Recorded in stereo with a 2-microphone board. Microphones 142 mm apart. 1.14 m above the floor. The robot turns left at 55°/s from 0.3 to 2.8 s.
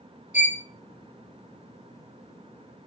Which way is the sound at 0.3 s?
60° left (ahead or behind).